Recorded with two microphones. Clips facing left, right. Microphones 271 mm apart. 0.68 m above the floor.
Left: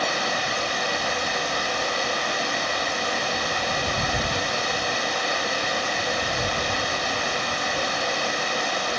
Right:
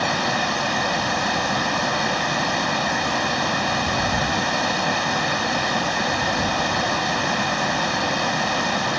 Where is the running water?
70° right (ahead or behind).